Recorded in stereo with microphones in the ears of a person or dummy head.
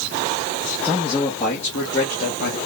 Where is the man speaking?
10° left (ahead or behind), 0.9 m; by 2.6 s 50° left (ahead or behind), 1.4 m.